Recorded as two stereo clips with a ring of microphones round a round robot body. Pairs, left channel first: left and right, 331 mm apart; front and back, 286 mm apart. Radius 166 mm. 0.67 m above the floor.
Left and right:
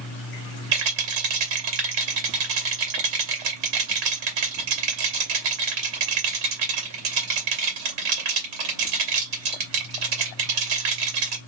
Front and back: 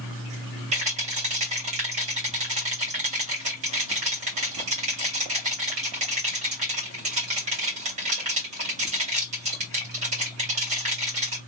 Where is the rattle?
110° right, 1.9 m.